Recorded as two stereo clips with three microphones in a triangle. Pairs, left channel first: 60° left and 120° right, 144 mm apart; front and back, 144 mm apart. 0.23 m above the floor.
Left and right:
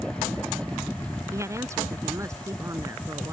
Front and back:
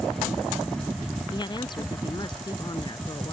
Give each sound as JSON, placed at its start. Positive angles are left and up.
{"t": 1.3, "sound": "a woman speaking", "azimuth_deg": -55}